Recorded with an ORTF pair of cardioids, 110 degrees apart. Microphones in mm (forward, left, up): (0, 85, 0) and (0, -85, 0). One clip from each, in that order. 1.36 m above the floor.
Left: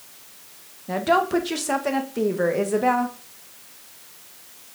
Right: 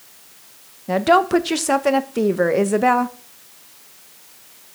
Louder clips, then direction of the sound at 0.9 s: Right 5 dB; 30° right.